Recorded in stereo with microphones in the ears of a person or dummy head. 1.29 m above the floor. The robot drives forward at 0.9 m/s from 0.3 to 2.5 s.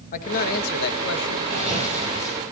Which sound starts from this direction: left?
A man speaking, at 0.1 s.